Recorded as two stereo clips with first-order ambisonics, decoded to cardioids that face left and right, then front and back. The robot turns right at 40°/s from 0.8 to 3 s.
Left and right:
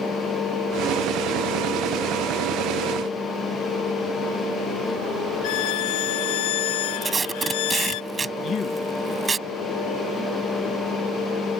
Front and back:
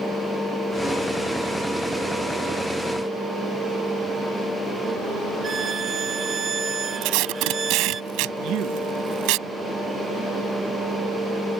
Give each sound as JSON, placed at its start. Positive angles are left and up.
{"t": 5.4, "sound": "a violin", "azimuth_deg": 115}
{"t": 7.0, "sound": "tape being pulled", "azimuth_deg": -165}
{"t": 8.4, "sound": "a man speaking", "azimuth_deg": 145}